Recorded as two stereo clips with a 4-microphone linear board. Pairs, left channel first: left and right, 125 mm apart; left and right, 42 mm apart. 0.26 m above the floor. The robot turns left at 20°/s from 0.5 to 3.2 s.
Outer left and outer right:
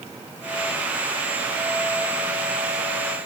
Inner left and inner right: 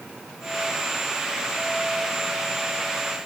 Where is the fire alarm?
I don't hear a fire alarm.